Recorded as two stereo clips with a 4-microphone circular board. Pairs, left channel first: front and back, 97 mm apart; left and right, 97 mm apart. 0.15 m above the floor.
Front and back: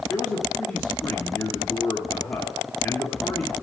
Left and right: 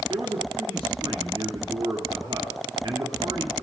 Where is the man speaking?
60° right, 2.5 m.